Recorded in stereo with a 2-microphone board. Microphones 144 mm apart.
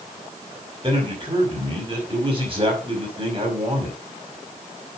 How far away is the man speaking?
About 5.5 m.